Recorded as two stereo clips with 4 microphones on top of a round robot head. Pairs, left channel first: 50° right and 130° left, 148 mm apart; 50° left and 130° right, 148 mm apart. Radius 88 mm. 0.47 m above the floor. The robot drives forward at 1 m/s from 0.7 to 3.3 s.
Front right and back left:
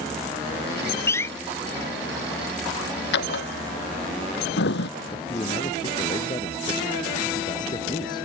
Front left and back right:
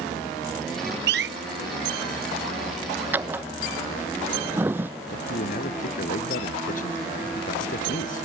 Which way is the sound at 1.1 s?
125° right.